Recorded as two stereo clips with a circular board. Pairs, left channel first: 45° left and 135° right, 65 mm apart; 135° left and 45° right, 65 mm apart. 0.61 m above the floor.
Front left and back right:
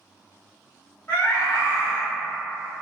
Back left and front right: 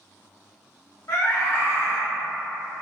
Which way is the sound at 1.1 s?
105° left.